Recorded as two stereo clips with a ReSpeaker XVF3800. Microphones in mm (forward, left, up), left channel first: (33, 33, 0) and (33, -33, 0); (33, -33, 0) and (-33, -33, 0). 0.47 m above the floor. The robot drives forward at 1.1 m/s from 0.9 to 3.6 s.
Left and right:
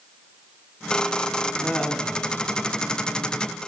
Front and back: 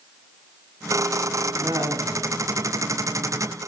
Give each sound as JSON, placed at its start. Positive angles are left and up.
{"t": 1.6, "sound": "laughter", "azimuth_deg": 175, "distance_m": 3.5}